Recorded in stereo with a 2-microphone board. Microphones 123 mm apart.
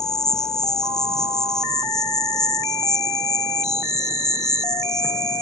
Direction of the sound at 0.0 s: 5° left (ahead or behind).